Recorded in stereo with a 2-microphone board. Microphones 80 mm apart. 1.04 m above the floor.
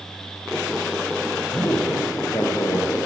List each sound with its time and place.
1.5 s a man speaking: 50° left (ahead or behind), 0.6 m